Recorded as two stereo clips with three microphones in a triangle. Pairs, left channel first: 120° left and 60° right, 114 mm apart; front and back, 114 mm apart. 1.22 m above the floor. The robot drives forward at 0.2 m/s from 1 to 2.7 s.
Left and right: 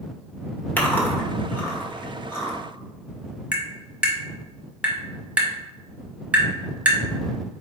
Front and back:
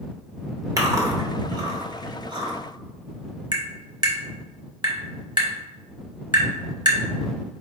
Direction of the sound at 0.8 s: 175° left.